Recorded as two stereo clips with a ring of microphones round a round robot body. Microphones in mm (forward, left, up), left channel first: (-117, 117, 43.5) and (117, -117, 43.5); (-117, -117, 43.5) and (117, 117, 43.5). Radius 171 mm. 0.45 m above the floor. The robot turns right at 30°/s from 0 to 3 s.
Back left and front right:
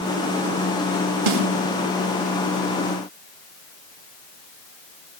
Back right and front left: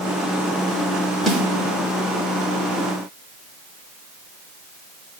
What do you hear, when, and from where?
1.3 s a snare drum: 45° right, 1.9 m; by 1.5 s 40° right, 1.9 m